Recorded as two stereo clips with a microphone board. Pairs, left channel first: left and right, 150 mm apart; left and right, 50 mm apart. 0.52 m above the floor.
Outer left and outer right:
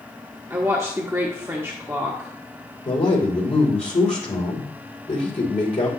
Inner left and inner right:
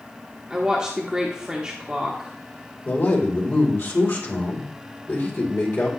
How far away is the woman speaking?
About 0.9 m.